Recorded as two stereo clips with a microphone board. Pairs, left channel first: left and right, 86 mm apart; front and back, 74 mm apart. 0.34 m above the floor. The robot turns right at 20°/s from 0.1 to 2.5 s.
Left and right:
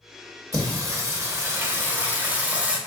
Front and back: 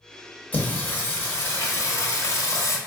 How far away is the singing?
About 0.9 m.